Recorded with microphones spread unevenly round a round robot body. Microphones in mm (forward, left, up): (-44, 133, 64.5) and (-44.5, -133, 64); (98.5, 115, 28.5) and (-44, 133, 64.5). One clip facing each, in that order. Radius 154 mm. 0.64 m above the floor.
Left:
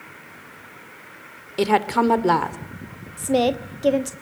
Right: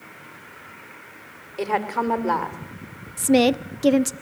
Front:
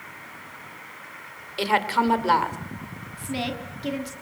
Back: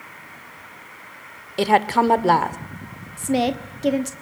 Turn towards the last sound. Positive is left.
turn(degrees=-135)